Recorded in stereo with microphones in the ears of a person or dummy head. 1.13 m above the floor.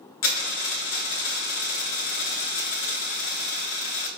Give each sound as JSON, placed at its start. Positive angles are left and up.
{"t": 0.2, "sound": "a dropped coin", "side_deg": 50, "distance_m": 0.8}